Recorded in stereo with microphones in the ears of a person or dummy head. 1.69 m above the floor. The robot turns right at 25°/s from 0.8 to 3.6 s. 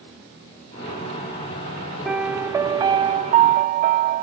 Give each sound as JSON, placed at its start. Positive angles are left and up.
{"t": 2.0, "sound": "a piano", "azimuth_deg": -175}